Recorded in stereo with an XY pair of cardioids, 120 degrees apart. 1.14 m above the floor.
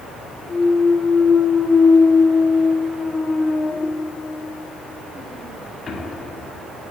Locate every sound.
0.5 s a clunk: 30° left, 2.5 m